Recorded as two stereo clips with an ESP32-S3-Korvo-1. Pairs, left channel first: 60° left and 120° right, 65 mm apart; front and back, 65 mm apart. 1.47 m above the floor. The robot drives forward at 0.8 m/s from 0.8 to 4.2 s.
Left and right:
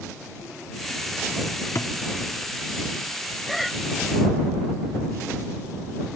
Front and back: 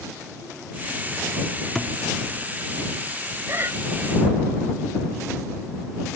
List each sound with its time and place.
1.8 s a thud: 90° left; by 1.9 s 95° left
3.5 s breathing: 145° left; by 3.8 s 150° left